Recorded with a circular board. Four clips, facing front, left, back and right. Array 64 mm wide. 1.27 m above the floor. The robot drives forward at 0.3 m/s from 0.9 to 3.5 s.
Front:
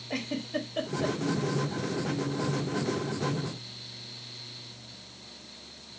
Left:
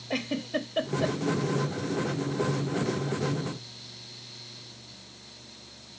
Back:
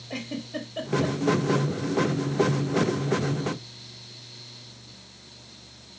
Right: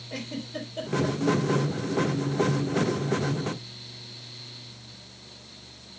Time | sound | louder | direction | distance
0.1 | a giggle | left 5 dB, front 1 dB | 80° left | 1.3 m